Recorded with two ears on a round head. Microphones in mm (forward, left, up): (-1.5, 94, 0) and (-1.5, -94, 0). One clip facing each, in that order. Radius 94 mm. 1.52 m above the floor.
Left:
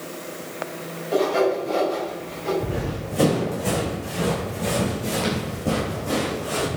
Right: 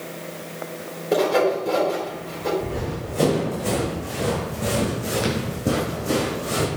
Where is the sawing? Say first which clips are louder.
Right 1 dB; 65° right (ahead or behind), 5 m.